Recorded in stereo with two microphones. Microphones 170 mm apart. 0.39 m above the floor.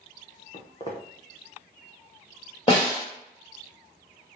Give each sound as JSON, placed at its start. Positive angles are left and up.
{"t": 0.5, "sound": "footsteps", "side_deg": 35, "distance_m": 0.9}
{"t": 2.7, "sound": "a snare drum", "side_deg": 35, "distance_m": 1.6}